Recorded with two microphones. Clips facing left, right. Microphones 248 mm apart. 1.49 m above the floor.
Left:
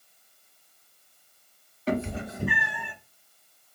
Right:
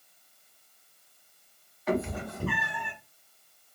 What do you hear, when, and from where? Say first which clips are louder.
1.9 s a cat meowing: left 1 dB; 35° left (ahead or behind), 1.2 m; by 2.9 s 5° left (ahead or behind), 1.1 m